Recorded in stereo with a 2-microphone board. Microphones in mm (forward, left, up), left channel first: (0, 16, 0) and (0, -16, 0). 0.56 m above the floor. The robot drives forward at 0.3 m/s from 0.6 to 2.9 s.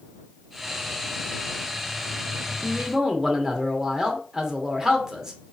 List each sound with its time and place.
2.6 s a man speaking: 15° right (ahead or behind), 0.8 m